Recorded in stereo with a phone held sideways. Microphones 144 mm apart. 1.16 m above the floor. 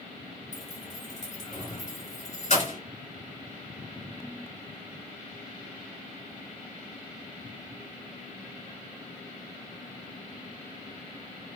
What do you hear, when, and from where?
0.5 s keys jangling: 50° left (ahead or behind), 2 m